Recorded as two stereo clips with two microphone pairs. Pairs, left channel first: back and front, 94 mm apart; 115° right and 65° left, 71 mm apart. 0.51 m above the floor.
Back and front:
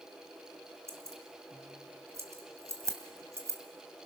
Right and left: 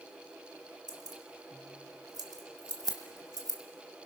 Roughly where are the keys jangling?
Ahead left.